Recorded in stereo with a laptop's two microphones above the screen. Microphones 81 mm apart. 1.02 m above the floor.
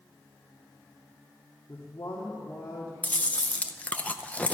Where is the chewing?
15° left (ahead or behind), 0.6 m.